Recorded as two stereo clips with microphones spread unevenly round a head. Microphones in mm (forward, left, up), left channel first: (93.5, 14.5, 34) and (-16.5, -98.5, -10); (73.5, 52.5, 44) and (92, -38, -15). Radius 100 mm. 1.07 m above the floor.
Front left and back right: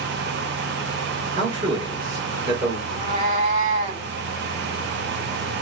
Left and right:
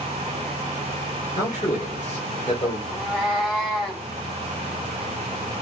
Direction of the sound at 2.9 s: 160° left.